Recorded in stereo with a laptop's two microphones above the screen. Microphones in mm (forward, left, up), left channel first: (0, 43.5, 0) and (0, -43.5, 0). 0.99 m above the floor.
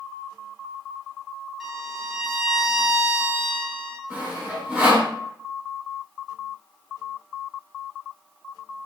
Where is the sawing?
15° right (ahead or behind), 1.5 m.